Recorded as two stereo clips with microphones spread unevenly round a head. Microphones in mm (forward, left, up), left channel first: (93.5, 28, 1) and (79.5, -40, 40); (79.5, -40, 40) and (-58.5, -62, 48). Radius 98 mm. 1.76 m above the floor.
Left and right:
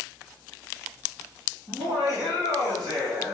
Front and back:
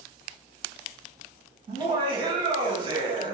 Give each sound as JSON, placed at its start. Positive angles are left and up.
{"t": 1.7, "sound": "laughter", "azimuth_deg": -120, "distance_m": 2.5}